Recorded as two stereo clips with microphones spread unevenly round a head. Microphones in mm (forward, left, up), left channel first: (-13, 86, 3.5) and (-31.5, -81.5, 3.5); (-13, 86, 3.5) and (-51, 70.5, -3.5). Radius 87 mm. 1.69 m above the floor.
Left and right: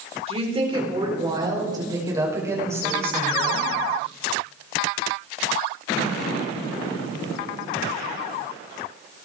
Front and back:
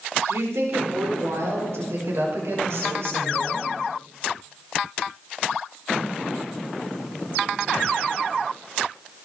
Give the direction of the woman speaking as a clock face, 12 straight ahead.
5 o'clock.